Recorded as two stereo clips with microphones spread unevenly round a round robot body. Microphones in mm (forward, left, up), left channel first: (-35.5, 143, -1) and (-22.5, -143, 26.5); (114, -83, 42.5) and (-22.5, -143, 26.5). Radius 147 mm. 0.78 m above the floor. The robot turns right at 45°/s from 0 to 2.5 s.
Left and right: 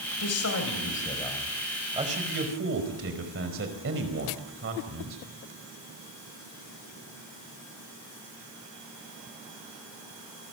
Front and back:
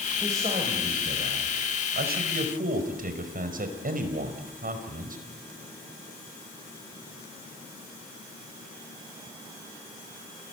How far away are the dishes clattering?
I don't hear dishes clattering.